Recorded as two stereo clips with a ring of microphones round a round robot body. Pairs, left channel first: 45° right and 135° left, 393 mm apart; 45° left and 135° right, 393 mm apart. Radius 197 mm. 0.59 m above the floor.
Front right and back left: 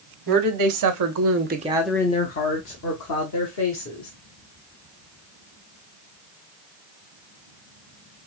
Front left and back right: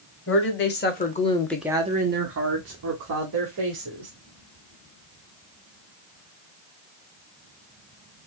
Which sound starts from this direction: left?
A woman speaking, at 0.3 s.